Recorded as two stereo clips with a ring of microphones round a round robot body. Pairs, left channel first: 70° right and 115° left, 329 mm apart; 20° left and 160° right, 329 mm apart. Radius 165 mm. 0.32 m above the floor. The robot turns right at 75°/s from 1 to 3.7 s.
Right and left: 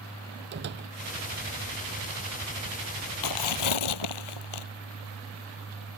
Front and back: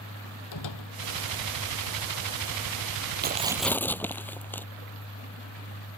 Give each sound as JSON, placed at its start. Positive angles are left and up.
{"t": 0.5, "sound": "a door slam", "azimuth_deg": 55}
{"t": 3.2, "sound": "tearing paper", "azimuth_deg": -95}